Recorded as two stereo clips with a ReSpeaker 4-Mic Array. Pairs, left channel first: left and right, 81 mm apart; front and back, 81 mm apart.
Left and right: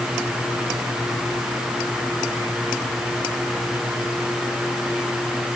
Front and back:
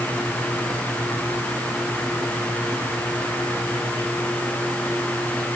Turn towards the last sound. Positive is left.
No sound to turn to.